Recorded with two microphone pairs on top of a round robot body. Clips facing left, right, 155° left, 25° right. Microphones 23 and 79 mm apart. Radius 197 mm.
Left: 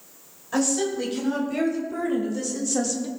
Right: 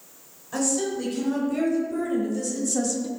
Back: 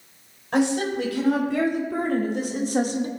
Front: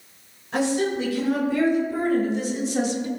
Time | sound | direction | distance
0.5 | a woman speaking | 155° left | 5 m